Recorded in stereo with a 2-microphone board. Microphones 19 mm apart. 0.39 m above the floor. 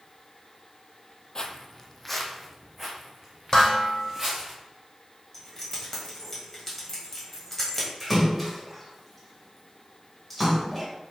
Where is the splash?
5° left (ahead or behind), 1.7 m.